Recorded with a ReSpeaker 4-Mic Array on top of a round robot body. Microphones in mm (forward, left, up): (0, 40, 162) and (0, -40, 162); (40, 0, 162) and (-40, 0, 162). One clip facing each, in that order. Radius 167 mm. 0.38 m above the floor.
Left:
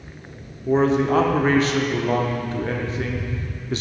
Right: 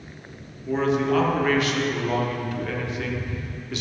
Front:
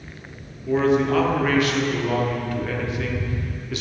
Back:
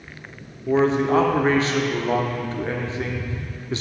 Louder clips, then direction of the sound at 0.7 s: Left 4 dB, even; 130° left.